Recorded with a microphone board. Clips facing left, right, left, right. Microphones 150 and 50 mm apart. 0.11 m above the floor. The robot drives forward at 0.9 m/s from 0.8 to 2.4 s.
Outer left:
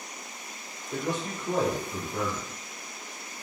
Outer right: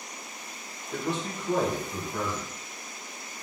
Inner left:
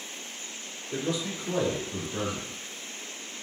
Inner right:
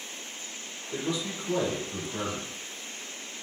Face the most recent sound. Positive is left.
turn(degrees=20)  # may be behind; listen again after turning